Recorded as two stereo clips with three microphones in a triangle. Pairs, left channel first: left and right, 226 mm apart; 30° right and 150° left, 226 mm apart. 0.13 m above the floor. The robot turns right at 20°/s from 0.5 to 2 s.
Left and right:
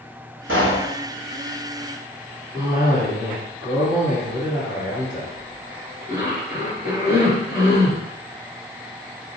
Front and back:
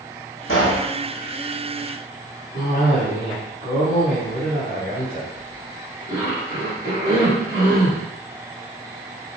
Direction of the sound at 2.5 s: 35° right.